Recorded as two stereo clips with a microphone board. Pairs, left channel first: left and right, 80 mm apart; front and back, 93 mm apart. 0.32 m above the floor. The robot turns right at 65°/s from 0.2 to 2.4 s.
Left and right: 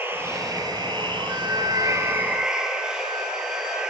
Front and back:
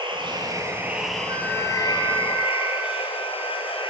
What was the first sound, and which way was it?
Running water, 150° right.